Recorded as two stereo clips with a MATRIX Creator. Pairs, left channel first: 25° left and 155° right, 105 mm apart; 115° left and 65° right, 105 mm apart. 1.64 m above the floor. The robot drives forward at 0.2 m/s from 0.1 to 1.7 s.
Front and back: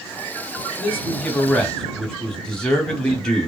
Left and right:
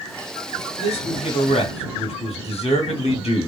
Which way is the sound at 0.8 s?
95° left.